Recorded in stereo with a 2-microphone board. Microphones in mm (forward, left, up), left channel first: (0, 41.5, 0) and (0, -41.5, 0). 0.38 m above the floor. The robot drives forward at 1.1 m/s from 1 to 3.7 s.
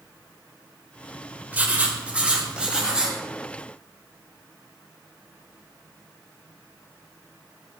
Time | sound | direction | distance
1.5 | writing | 20° right (ahead or behind) | 1.3 m